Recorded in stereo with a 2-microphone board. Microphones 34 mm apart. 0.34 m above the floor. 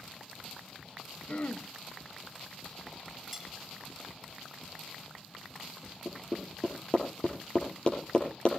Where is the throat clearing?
45° left (ahead or behind), 1.3 m.